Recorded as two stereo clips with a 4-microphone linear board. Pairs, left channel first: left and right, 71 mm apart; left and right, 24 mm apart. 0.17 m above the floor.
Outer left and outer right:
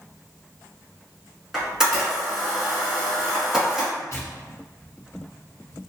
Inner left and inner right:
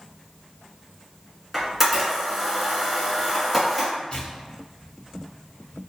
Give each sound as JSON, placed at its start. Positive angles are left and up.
{"t": 1.5, "sound": "a camera shutter", "side_deg": -10, "distance_m": 1.7}
{"t": 4.1, "sound": "tearing paper", "side_deg": 40, "distance_m": 1.1}